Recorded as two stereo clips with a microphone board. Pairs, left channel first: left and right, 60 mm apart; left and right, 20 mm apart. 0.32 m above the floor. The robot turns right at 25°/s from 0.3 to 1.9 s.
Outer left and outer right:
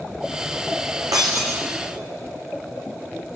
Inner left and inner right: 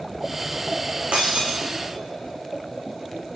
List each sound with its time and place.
1.1 s breaking glass: 85° right, 4 m